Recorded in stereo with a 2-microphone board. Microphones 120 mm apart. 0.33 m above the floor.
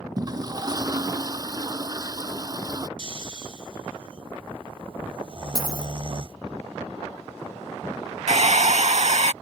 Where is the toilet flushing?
30° right (ahead or behind).